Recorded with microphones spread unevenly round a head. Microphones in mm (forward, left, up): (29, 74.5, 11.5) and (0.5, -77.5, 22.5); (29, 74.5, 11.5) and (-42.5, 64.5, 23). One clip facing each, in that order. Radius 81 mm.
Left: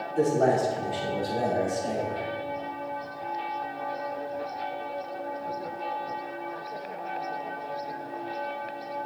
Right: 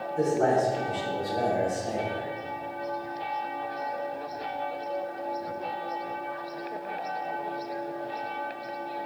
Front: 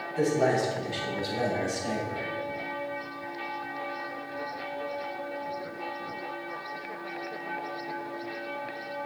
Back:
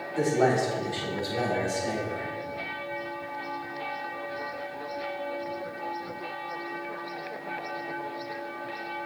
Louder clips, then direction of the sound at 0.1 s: Left 1 dB, back 1 dB; 125° left.